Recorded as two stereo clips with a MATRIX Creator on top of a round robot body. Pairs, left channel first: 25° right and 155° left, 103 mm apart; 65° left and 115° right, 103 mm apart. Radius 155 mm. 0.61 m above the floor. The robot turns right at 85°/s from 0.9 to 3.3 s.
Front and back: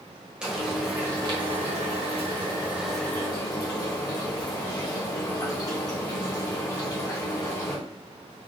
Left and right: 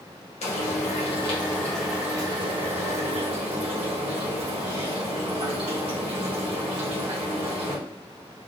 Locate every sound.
0.4 s frying: 75° left, 1.4 m; by 7.8 s 80° right, 1.4 m